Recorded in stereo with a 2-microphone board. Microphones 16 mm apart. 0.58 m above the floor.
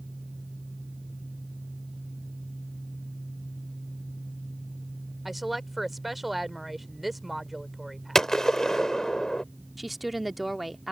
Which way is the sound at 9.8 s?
10° right (ahead or behind).